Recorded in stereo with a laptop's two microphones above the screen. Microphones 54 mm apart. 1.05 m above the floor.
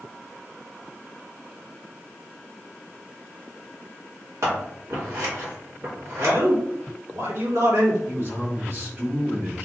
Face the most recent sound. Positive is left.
turn(degrees=-50)  # may be behind; listen again after turning